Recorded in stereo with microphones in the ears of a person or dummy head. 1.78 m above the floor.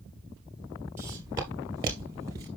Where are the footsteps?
10° right (ahead or behind), 1.9 m; by 2.5 s 15° right (ahead or behind), 1.8 m.